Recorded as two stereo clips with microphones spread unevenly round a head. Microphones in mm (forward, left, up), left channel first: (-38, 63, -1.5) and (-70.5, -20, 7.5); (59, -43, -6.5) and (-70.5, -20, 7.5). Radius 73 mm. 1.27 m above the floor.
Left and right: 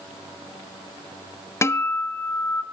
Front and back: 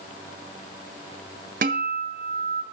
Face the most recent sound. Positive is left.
turn(degrees=130)